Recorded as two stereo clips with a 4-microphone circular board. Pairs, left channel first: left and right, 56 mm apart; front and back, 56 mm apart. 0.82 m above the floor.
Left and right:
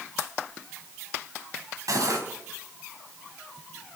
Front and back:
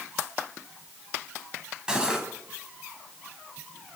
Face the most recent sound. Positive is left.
turn(degrees=-105)